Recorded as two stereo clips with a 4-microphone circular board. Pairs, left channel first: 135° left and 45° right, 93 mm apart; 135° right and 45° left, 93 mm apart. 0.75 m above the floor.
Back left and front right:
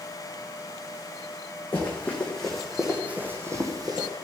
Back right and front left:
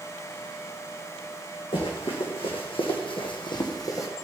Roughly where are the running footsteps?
Behind right.